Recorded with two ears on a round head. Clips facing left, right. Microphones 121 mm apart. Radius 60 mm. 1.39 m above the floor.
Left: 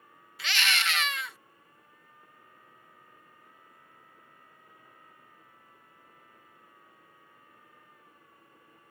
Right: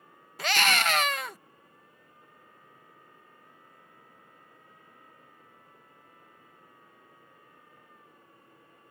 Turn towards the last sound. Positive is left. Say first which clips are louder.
# right 6 dB
turn(degrees=-35)  # may be behind; listen again after turning